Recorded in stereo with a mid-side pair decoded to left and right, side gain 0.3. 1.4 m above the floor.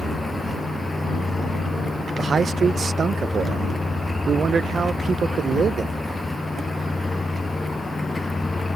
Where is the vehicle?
30° left.